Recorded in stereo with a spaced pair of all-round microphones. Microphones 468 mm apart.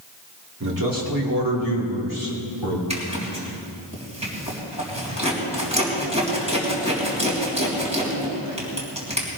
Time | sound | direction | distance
0.6 | a man speaking | 35° right (ahead or behind) | 3 m
2.9 | a zipper | 15° right (ahead or behind) | 3.5 m